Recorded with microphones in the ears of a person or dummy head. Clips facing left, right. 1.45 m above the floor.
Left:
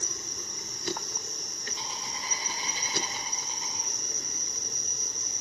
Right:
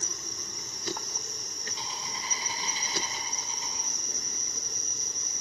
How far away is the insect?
About 2.5 m.